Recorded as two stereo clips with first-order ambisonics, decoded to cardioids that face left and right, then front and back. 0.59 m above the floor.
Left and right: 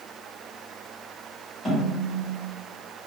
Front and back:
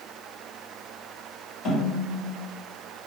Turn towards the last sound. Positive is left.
turn(degrees=20)